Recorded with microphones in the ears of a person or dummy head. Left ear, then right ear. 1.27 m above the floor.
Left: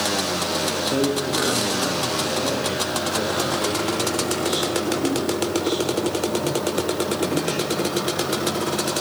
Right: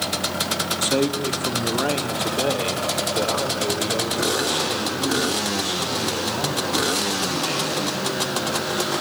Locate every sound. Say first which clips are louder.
0.8 s a man speaking: even; 50° right (ahead or behind), 1.8 m; by 8.7 s 40° right (ahead or behind), 8.5 m